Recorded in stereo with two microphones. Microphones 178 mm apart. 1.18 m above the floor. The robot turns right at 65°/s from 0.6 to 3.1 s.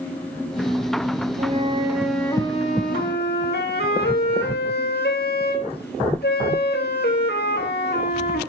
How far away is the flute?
About 1.5 m.